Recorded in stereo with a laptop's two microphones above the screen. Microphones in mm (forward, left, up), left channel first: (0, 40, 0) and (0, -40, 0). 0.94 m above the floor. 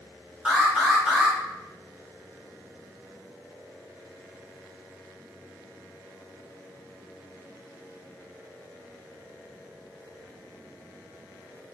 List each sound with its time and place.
0.5 s an alarm: 10° right (ahead or behind), 2 m